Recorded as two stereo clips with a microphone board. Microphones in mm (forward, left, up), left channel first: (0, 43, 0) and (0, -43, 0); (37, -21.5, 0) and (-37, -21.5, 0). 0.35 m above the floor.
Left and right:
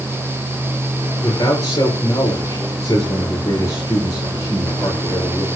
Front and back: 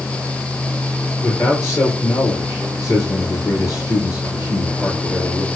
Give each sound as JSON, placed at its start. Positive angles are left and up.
{"t": 1.2, "sound": "a man speaking", "azimuth_deg": 40, "distance_m": 6.5}